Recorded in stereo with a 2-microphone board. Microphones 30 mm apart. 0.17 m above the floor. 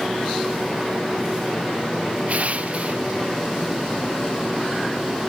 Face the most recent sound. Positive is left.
turn(degrees=-50)  # may be behind; listen again after turning